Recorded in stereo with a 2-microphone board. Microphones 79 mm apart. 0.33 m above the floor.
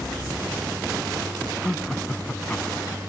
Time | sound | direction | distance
1.6 | laughter | 10° left (ahead or behind) | ?